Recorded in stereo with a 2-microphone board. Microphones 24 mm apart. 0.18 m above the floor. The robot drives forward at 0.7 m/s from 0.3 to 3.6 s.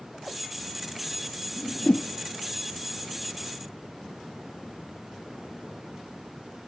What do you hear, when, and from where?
1.6 s a whoosh: 50° left (ahead or behind), 0.6 m; by 2.1 s 85° left, 0.5 m